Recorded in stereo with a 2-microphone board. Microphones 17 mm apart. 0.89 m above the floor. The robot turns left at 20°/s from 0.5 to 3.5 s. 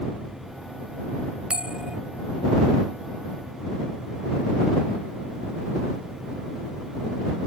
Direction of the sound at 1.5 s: 75° right (ahead or behind).